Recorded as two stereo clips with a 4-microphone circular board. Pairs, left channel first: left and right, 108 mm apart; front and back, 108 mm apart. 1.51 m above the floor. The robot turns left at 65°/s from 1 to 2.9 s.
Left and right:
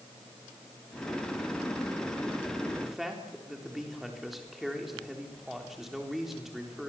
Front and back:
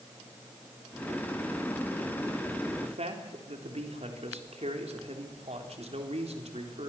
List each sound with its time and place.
2.8 s a man speaking: 175° right, 3.5 m; by 6.9 s straight behind, 3.5 m